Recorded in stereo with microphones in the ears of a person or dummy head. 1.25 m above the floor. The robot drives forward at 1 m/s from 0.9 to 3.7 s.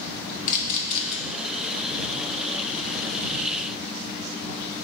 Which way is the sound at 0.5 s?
45° left (ahead or behind).